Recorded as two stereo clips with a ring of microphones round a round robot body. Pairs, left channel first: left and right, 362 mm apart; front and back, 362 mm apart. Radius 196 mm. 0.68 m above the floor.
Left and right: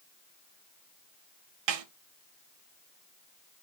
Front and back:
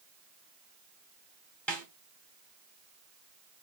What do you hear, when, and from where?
1.7 s a snare drum: 85° right, 1.2 m